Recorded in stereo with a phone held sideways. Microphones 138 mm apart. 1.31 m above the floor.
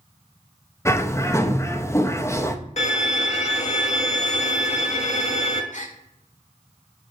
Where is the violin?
55° left (ahead or behind), 1.6 m.